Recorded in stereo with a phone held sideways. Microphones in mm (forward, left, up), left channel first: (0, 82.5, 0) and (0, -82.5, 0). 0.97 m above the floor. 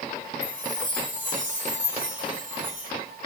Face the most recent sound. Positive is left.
turn(degrees=-50)  # may be behind; listen again after turning